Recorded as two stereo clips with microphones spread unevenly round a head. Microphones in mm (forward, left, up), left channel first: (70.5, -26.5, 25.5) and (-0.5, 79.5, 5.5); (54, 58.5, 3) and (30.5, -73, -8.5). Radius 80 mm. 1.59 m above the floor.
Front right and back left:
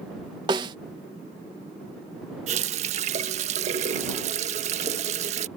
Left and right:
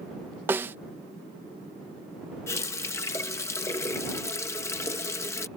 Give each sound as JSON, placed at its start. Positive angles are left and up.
{"t": 0.5, "sound": "a snare drum", "azimuth_deg": -175}
{"t": 2.5, "sound": "a running tap", "azimuth_deg": 135}